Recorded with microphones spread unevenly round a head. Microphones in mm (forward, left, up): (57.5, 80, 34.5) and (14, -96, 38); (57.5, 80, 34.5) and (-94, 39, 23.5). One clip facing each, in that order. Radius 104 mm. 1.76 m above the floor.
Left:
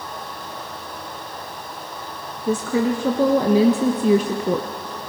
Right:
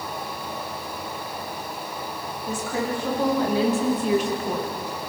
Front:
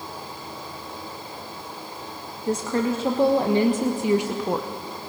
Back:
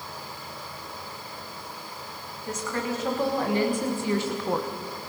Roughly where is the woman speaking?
Left.